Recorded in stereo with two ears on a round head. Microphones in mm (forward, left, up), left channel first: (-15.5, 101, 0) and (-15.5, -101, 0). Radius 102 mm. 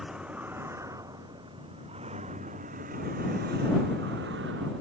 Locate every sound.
0.0 s a vehicle: 5° right (ahead or behind); by 4.8 s 50° right (ahead or behind)